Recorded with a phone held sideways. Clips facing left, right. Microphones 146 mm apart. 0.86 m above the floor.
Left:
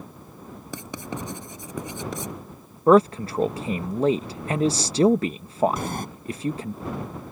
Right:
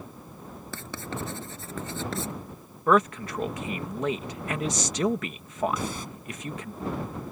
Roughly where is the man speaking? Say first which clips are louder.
Left 6 dB; left.